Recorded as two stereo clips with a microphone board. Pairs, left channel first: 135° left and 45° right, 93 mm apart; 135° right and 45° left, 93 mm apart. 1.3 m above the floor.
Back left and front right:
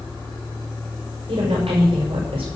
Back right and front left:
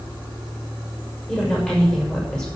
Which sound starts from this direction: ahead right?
A woman speaking, at 1.3 s.